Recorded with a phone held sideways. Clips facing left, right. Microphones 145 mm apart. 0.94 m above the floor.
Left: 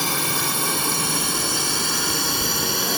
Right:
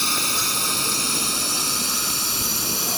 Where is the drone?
55° left (ahead or behind); by 3.0 s 60° left (ahead or behind).